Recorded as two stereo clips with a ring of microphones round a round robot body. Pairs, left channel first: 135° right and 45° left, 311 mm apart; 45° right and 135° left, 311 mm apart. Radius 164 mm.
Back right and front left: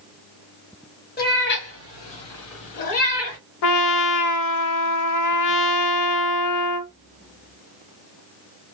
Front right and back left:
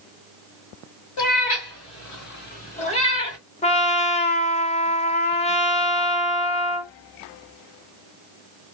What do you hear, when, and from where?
1.2 s a cat meowing: 75° right, 1.5 m; by 3.4 s 125° right, 1.7 m
3.6 s a trumpet: 115° right, 0.5 m